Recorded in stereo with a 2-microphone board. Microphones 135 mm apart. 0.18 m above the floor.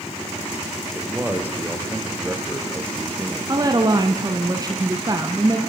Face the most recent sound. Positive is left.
turn(degrees=-30)  # may be behind; listen again after turning